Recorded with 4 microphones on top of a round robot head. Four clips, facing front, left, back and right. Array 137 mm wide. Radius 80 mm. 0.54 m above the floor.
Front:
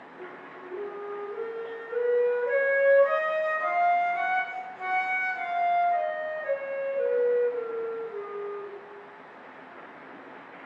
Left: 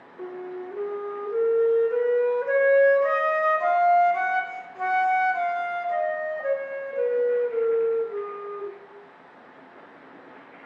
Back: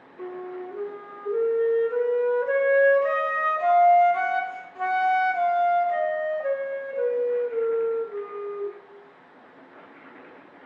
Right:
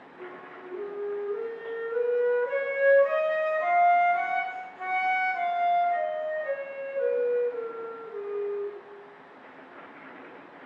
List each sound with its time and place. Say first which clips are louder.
0.2 s a flute: left 9 dB, back 10 dB; 125° left, 0.5 m